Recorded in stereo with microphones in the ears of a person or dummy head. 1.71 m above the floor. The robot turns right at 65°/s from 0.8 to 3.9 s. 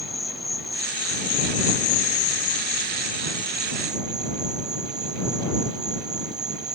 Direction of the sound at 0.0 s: Straight ahead.